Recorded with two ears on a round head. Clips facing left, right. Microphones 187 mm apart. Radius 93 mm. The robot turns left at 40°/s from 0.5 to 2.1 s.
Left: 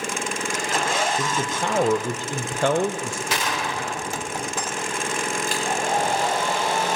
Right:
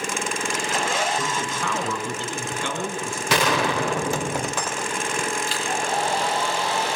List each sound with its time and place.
1.2 s a man speaking: 170° left, 1.6 m; by 3.2 s 130° left, 1.6 m
3.3 s a gunshot: 55° right (ahead or behind), 1.3 m
5.5 s a hair dryer: 45° left (ahead or behind), 4.5 m